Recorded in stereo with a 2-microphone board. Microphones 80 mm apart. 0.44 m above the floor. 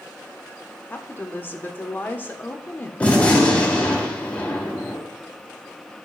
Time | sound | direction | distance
0.9 | a woman speaking | 25° left (ahead or behind) | 0.8 m
3.0 | a gunshot | 20° left (ahead or behind) | 1.7 m